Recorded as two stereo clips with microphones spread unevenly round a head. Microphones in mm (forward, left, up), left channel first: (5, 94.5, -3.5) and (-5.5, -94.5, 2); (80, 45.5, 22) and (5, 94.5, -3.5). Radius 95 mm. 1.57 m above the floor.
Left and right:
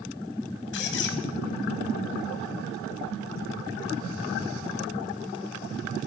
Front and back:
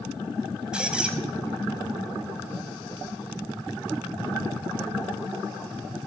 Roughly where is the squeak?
Ahead left.